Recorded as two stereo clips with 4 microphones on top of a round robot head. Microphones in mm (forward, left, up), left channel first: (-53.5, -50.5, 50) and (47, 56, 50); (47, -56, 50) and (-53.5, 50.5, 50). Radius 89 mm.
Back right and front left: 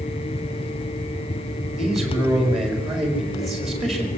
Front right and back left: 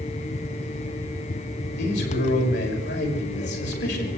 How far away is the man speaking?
About 5.5 m.